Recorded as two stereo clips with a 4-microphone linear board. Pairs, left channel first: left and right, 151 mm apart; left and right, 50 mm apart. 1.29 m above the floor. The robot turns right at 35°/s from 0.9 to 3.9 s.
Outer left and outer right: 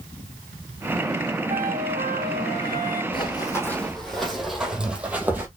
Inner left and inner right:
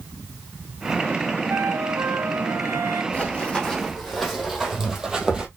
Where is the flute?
115° right, 1.0 m; by 3.0 s 60° right, 1.0 m.